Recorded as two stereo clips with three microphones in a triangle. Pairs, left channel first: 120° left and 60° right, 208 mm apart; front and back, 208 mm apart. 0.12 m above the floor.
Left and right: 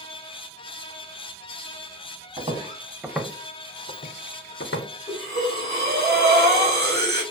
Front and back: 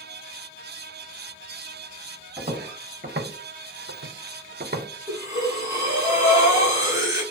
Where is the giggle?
I don't hear a giggle.